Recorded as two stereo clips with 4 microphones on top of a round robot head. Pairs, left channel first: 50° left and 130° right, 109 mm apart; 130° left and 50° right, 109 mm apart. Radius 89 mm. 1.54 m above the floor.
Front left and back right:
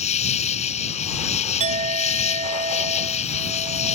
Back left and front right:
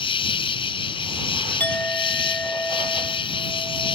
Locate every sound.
0.0 s an insect: 80° left
1.6 s a clink: 155° right